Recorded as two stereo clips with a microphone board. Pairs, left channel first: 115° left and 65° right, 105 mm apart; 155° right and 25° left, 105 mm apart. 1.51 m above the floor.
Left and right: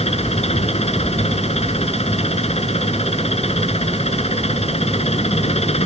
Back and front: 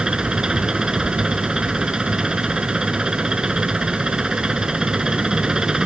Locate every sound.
0.0 s an engine running: 105° left